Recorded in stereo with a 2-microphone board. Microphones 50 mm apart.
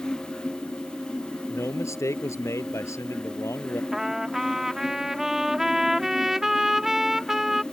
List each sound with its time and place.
1.5 s a man speaking: 75° left (ahead or behind)
3.9 s a trumpet: 10° right (ahead or behind)